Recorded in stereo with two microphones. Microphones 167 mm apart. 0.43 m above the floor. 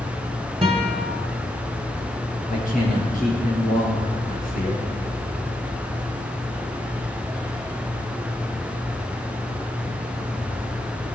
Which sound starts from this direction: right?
A guitar, at 0.6 s.